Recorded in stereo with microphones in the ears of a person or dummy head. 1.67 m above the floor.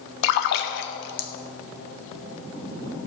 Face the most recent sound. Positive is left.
turn(degrees=60)  # may be behind; listen again after turning